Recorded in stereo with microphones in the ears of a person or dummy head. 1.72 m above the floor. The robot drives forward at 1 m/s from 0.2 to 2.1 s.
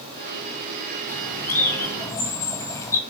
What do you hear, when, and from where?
1.1 s a bird: 10° left (ahead or behind), 4.5 m; by 3.0 s 15° left (ahead or behind), 3.5 m